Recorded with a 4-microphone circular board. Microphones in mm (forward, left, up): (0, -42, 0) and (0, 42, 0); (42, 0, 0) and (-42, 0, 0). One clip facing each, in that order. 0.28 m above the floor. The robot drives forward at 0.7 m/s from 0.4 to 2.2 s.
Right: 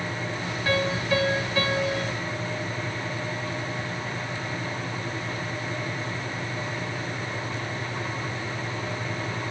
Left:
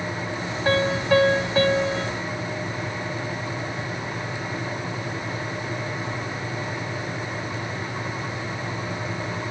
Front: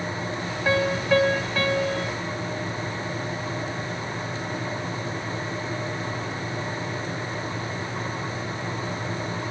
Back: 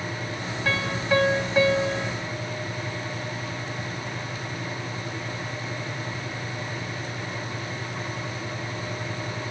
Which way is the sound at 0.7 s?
65° left.